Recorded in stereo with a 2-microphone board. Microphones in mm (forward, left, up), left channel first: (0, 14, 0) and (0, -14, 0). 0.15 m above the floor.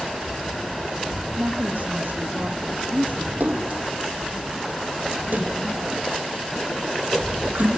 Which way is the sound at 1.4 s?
60° right (ahead or behind).